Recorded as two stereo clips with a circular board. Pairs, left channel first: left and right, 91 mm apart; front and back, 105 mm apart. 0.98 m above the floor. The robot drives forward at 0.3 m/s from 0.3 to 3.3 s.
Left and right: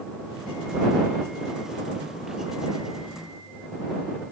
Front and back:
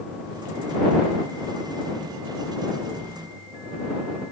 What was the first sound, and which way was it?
Only background noise.